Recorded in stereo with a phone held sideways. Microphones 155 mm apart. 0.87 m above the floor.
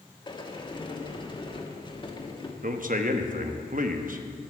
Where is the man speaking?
60° right (ahead or behind), 1.0 m.